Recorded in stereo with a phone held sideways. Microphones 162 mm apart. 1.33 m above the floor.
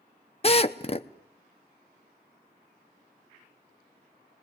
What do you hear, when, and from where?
0.4 s a drill: 40° left (ahead or behind), 0.8 m